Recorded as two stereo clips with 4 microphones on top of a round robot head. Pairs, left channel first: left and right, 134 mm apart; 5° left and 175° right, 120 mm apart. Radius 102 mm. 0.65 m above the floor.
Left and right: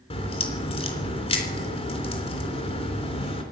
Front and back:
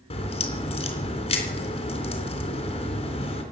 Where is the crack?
45° left, 3.5 m.